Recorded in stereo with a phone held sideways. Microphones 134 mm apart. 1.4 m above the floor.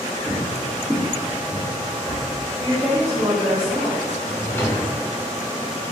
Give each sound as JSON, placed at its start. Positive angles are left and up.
{"t": 0.3, "sound": "footsteps", "side_deg": -15, "distance_m": 1.4}
{"t": 2.6, "sound": "a woman speaking", "side_deg": -25, "distance_m": 1.4}
{"t": 4.2, "sound": "a drawer", "side_deg": 15, "distance_m": 0.6}